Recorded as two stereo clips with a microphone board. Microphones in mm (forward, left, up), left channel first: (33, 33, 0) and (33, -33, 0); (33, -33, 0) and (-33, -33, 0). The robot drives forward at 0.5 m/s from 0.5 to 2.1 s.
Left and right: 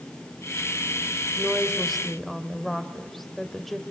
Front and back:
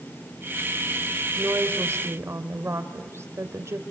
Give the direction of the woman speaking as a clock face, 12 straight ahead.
6 o'clock.